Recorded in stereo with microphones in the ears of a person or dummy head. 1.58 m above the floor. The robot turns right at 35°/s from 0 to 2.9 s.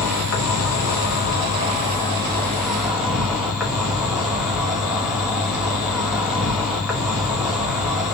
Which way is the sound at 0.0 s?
85° left.